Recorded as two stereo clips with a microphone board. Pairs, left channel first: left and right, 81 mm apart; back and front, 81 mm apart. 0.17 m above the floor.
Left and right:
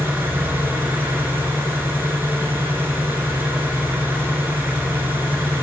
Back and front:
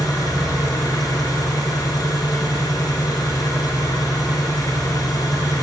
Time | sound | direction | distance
0.0 | an engine running | 150° right | 0.9 m